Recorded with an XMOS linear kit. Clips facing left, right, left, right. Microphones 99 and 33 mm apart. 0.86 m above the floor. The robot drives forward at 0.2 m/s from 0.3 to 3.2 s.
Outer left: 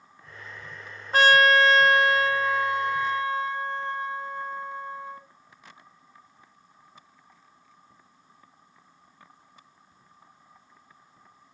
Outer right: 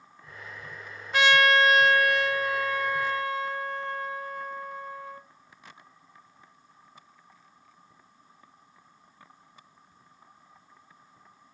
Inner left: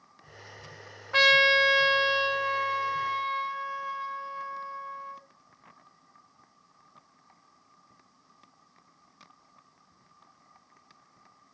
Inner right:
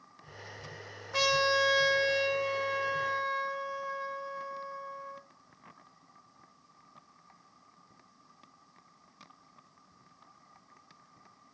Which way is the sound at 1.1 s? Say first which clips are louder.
Outer left 3 dB, inner left 7 dB; 40° left (ahead or behind).